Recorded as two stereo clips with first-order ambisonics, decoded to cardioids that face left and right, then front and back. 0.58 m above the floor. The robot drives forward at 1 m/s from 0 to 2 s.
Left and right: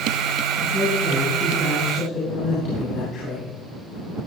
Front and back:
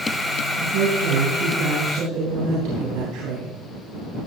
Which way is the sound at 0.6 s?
150° left.